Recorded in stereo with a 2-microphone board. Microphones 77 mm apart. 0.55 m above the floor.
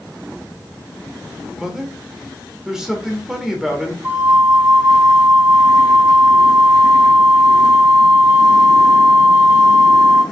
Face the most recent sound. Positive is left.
turn(degrees=-30)  # may be behind; listen again after turning